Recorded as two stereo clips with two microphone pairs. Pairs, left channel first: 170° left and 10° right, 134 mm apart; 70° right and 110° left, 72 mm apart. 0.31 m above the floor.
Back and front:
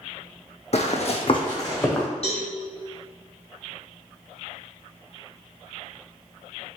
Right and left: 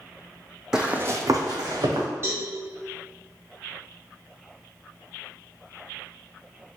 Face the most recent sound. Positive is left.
turn(degrees=150)